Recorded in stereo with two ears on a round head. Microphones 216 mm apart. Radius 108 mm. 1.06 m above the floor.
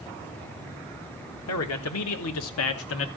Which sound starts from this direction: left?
A man speaking, at 1.5 s.